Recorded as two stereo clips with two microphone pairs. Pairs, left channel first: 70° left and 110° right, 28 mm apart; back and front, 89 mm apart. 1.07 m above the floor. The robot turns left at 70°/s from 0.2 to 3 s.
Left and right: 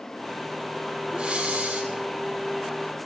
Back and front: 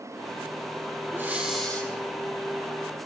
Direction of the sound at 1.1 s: 60° right.